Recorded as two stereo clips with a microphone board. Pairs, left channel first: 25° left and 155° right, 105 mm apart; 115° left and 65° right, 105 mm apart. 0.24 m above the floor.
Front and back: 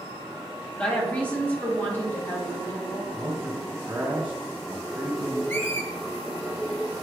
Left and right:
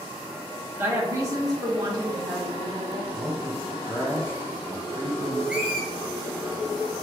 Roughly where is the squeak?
Ahead.